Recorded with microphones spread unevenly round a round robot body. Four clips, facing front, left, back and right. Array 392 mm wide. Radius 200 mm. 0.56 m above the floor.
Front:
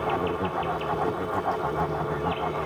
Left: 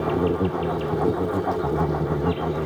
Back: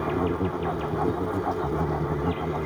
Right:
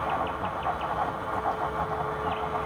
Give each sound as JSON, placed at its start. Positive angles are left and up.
{"t": 0.0, "sound": "an insect", "azimuth_deg": 110}